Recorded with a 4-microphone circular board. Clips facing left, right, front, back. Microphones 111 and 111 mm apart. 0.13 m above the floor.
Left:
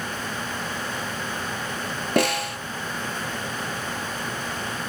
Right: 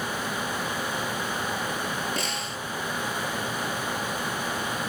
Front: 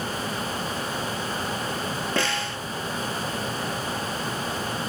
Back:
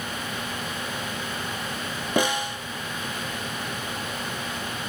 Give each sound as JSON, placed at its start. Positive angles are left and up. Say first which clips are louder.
{"t": 2.2, "sound": "a snare drum", "louder": "left 9 dB, back 6 dB", "azimuth_deg": 105, "distance_m": 0.6}